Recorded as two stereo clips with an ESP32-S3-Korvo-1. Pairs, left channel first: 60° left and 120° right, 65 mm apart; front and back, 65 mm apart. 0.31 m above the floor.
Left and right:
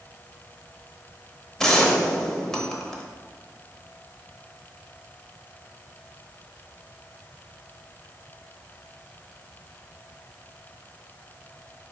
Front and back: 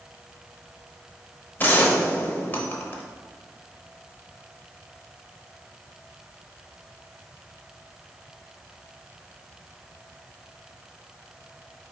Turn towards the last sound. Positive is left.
turn(degrees=-15)